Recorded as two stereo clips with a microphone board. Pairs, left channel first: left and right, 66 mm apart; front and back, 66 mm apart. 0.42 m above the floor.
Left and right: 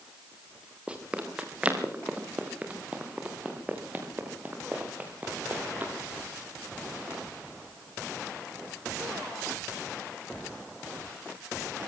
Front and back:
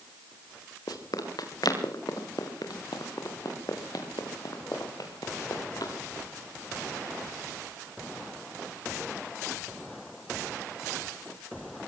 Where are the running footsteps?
15° right, 4.5 m; by 5.9 s 25° right, 7 m.